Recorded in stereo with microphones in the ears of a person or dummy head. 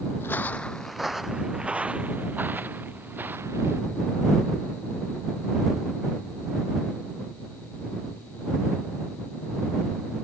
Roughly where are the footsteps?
Centre.